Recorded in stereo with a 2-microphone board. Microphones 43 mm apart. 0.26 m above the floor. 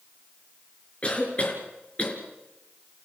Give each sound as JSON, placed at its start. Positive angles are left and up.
{"t": 1.0, "sound": "a cough", "side_deg": 30, "distance_m": 4.5}